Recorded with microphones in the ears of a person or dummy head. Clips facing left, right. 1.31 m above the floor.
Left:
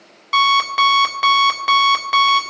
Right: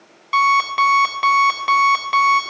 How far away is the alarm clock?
About 1.0 m.